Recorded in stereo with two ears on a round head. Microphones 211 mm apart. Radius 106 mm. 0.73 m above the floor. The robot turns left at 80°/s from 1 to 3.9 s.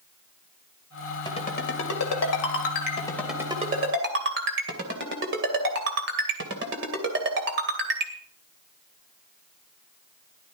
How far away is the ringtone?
About 2.5 m.